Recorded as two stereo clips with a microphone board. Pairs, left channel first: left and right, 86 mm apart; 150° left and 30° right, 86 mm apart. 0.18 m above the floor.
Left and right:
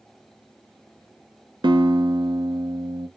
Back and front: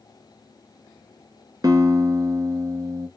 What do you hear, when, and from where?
1.6 s a guitar: 70° right, 0.7 m